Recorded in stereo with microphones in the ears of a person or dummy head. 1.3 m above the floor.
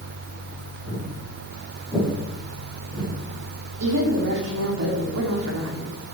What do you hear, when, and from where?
0.9 s footsteps: 15° right (ahead or behind), 4 m; by 3.1 s centre (ahead or behind), 5.5 m
3.8 s a woman speaking: 80° right, 2.5 m